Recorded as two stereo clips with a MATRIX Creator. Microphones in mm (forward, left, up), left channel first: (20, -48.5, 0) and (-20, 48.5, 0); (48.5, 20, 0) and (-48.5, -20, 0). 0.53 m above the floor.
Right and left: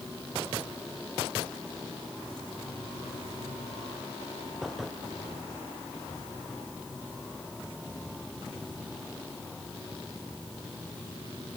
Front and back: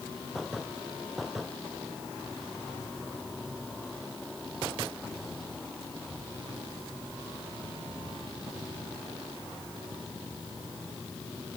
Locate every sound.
Only background noise.